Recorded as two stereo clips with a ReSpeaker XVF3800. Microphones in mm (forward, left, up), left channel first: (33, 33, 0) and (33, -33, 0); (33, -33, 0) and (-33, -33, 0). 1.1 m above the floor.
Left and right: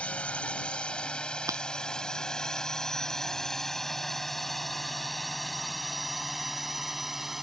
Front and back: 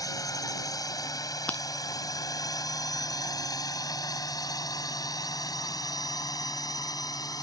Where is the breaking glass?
65° right.